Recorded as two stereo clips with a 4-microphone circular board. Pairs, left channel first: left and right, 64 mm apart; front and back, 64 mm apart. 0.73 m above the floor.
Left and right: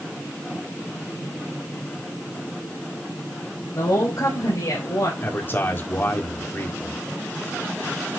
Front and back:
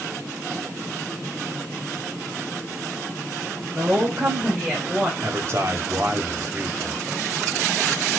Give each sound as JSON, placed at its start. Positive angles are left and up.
{"t": 3.8, "sound": "a woman speaking", "azimuth_deg": 125, "distance_m": 4.5}
{"t": 5.2, "sound": "a man speaking", "azimuth_deg": 140, "distance_m": 2.0}